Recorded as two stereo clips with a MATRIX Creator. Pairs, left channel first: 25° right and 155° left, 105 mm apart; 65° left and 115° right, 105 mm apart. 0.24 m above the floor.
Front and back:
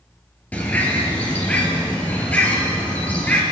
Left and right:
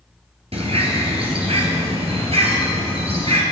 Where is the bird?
100° right, 2.5 m.